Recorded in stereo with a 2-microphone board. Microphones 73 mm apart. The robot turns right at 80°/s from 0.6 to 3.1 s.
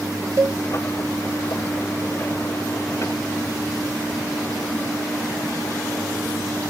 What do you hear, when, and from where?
0.4 s a cowbell: 40° right (ahead or behind)